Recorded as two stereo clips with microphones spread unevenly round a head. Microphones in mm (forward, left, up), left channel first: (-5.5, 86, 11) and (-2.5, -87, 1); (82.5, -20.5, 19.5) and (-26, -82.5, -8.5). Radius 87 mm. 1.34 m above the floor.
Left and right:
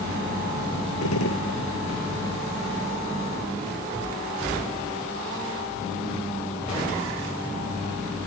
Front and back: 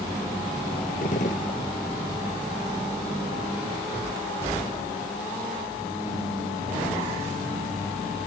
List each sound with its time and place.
1.0 s a gunshot: 80° left